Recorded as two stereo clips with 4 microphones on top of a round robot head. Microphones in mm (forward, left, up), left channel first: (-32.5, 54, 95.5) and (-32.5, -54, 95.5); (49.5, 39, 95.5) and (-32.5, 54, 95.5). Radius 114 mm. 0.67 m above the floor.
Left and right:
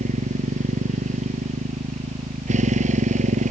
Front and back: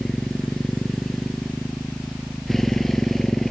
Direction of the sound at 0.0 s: 95° right.